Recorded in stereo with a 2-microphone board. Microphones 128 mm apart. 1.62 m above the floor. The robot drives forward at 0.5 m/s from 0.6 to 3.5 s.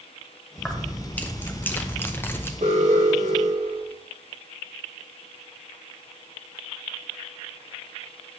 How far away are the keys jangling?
About 1.1 m.